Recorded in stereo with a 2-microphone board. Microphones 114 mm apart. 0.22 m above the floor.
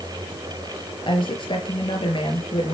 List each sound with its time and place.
1.0 s a woman speaking: 50° left (ahead or behind), 4 m